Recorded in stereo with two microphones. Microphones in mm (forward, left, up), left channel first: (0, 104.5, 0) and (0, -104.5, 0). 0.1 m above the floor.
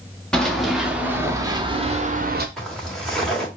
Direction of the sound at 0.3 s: 5° left (ahead or behind).